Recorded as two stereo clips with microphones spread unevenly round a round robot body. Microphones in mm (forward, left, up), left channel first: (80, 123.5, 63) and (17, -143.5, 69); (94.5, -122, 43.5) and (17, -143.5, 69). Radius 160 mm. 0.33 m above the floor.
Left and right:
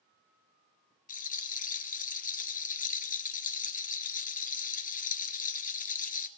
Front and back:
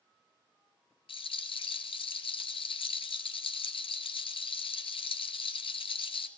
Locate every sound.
1.1 s a rattle: 15° left, 1.0 m